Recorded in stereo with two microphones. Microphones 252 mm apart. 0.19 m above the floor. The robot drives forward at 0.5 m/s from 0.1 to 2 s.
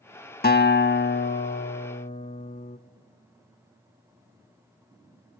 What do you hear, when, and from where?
0.4 s a guitar: 40° left (ahead or behind), 0.5 m; by 2.8 s 25° left (ahead or behind), 0.7 m